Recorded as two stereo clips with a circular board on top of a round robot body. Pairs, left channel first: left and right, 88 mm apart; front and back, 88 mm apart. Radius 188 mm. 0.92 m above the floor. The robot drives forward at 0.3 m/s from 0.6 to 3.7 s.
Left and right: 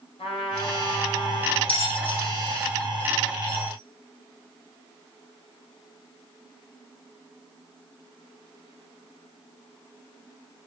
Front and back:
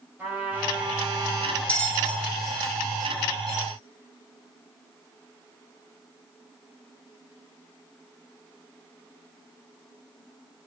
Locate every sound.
0.2 s a trumpet: 110° left, 5 m; by 1.6 s 115° left, 5 m
1.7 s a bell: 75° left, 2.5 m; by 3.7 s 90° left, 2.5 m